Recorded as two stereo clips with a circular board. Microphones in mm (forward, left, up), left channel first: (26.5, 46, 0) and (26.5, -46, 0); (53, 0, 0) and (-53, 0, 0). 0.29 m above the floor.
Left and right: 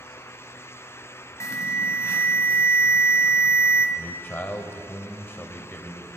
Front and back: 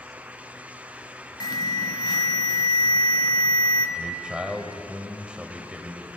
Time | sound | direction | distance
1.4 | an alarm | 40° left | 1.1 m
4.0 | a man speaking | 115° left | 1.0 m